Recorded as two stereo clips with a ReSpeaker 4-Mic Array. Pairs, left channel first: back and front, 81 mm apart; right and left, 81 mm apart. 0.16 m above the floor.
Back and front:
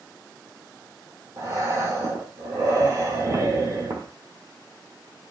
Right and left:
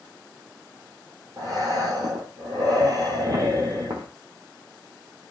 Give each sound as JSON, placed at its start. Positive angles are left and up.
{"t": 1.4, "sound": "breathing", "azimuth_deg": 50, "distance_m": 0.8}